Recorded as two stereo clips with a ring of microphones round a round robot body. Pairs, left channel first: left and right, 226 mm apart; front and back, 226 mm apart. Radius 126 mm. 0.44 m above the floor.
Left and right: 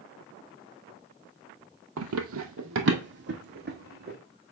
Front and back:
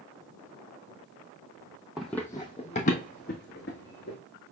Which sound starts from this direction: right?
Running footsteps, at 2.0 s.